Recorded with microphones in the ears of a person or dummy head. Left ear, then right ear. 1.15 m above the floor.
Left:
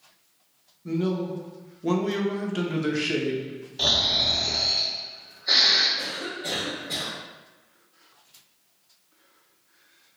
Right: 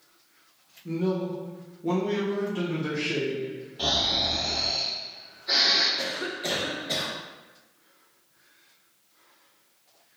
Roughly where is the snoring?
Left.